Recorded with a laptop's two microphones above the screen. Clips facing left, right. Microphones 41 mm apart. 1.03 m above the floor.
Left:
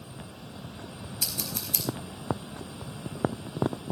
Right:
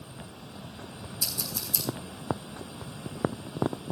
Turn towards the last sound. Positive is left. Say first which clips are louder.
# left 1 dB
turn(degrees=60)  # may be behind; listen again after turning